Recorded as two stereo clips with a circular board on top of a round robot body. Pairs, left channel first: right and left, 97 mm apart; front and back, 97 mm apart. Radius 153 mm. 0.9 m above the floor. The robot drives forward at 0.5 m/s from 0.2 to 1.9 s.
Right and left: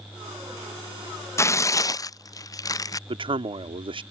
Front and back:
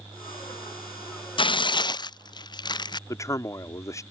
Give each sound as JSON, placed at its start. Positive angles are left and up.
{"t": 1.4, "sound": "tearing paper", "azimuth_deg": -30}
{"t": 3.1, "sound": "a man speaking", "azimuth_deg": 60}